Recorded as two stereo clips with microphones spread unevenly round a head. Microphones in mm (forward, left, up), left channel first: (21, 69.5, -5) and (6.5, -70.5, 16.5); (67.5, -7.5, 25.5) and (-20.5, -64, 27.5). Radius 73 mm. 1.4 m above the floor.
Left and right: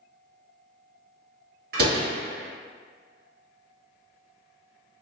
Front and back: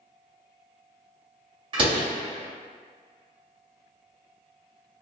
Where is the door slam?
110° right, 1.3 m.